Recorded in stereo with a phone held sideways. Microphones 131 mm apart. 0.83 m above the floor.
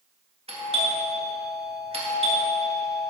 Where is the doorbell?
45° right (ahead or behind), 1.8 m.